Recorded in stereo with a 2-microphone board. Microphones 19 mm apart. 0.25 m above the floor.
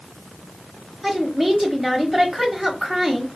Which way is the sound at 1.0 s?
10° right (ahead or behind).